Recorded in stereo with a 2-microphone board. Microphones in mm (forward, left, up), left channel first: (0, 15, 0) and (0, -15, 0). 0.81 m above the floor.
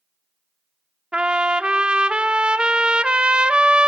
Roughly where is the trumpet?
Right.